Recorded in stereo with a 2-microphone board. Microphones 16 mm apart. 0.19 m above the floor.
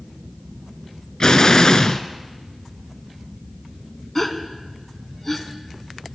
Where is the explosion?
45° left (ahead or behind), 0.7 m.